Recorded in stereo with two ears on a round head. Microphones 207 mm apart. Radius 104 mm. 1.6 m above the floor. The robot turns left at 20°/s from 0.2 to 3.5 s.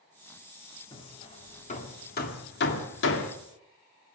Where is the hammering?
20° left (ahead or behind), 2 m; by 3.4 s 60° left (ahead or behind), 2 m.